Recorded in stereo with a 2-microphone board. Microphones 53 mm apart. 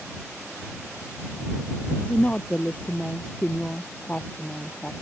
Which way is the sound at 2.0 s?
30° left (ahead or behind).